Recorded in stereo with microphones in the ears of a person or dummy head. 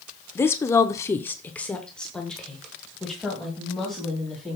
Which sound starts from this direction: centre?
A woman speaking, at 0.3 s.